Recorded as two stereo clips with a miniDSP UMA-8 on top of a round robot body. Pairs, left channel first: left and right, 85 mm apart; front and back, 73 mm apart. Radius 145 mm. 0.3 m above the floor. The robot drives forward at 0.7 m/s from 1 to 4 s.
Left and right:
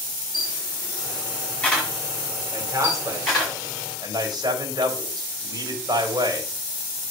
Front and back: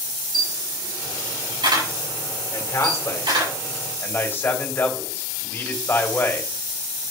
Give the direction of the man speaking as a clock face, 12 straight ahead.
1 o'clock.